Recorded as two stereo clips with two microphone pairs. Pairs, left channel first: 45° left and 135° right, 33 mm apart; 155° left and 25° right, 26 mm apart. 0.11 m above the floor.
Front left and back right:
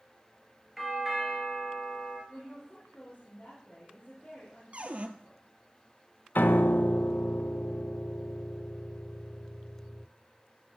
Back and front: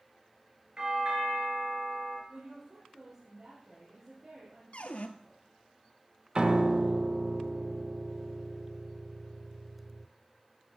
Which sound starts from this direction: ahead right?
A doorbell, at 0.8 s.